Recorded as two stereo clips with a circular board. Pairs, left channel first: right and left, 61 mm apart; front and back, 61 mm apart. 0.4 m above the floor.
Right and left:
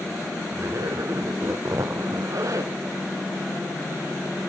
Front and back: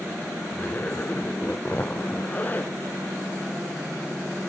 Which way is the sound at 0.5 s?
60° left.